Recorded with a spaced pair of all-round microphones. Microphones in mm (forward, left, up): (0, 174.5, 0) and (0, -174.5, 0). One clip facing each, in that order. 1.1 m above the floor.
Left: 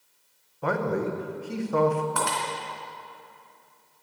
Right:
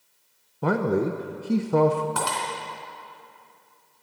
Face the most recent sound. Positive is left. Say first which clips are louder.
# even
turn(degrees=-50)  # may be behind; listen again after turning